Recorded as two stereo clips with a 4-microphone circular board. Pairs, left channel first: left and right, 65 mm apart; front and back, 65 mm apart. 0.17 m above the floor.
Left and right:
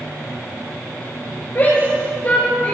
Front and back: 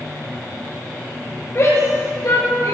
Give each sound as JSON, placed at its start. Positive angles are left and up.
{"t": 1.6, "sound": "a shout", "azimuth_deg": 45, "distance_m": 3.0}